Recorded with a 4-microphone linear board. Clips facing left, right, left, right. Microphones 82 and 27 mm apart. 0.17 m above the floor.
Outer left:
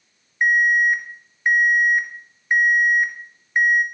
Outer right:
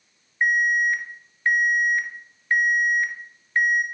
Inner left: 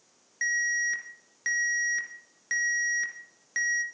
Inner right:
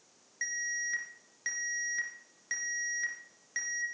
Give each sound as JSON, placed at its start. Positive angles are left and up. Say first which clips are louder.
{"t": 0.4, "sound": "an alarm", "louder": "outer left 4 dB, inner left 8 dB", "side_deg": 15, "distance_m": 1.9}